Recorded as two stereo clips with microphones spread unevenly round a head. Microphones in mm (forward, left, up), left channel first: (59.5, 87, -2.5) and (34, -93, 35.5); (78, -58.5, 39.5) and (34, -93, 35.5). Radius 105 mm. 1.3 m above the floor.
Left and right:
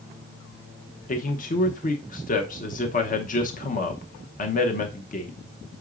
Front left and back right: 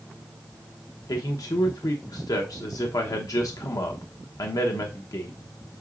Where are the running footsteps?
No running footsteps in this recording.